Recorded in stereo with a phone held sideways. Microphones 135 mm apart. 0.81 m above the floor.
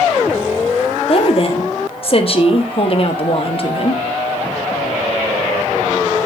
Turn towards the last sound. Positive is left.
turn(degrees=45)  # may be behind; listen again after turning